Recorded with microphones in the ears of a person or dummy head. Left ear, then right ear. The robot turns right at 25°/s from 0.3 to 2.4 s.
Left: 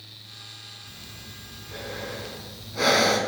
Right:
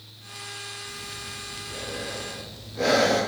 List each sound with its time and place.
0.9 s breathing: 10° left, 4.5 m; by 3.2 s 50° left, 4.5 m